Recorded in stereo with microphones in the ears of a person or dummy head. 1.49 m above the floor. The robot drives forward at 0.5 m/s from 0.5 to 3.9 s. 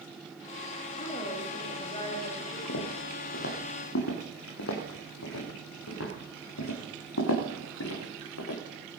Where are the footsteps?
55° left (ahead or behind), 3.5 m; by 8.6 s 75° left (ahead or behind), 6 m.